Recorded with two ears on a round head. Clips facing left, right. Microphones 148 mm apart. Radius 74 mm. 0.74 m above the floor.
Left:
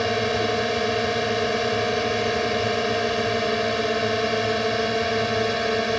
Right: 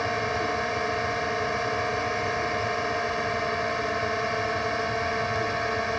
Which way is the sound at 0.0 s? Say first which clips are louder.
Left 5 dB; 40° left (ahead or behind).